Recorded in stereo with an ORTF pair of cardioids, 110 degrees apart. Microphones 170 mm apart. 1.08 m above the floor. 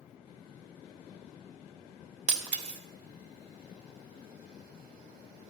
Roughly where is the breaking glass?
Ahead right.